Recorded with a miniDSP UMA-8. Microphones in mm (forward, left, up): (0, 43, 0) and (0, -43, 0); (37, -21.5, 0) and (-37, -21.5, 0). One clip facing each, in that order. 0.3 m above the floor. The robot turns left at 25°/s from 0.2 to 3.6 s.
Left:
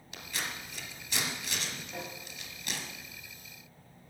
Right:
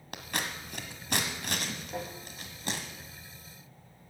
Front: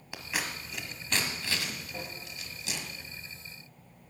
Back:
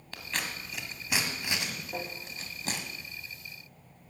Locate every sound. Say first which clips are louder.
0.1 s scissors: right 3 dB, front 1 dB; 75° right, 1.6 m; by 2.8 s 140° right, 1.6 m
1.9 s tapping: right 5 dB, back 4 dB; 155° right, 5.5 m; by 2.1 s 160° right, 5.5 m